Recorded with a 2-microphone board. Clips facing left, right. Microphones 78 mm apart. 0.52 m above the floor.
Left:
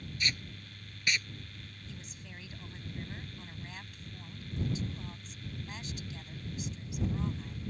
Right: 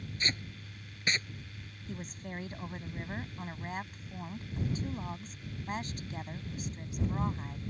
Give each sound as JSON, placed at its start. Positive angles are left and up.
{"t": 0.2, "sound": "tape being pulled", "side_deg": -35}
{"t": 1.9, "sound": "a woman speaking", "side_deg": -45}